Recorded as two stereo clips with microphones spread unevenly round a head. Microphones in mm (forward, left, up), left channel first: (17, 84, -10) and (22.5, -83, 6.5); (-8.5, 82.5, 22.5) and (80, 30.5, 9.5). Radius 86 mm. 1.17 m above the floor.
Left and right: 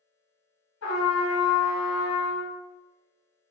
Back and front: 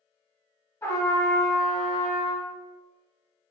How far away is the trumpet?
About 1.0 m.